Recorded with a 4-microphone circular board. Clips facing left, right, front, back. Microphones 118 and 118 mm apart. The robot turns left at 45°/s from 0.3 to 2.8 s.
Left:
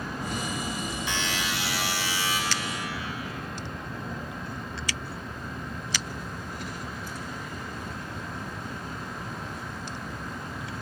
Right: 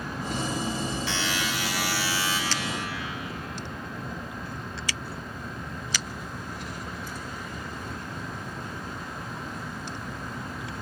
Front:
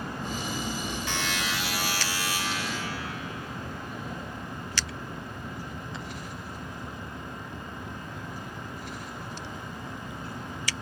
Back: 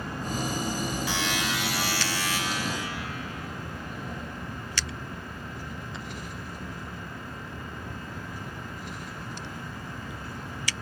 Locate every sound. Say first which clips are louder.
1.1 s a buzzer: right 1 dB, back 2 dB; 100° left, 1.5 m; by 2.4 s 40° left, 1.5 m